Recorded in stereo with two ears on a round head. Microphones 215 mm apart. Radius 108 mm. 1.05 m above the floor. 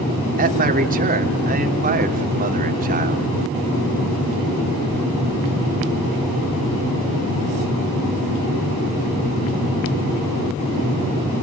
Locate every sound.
0.4 s a man speaking: 35° right (ahead or behind), 3 m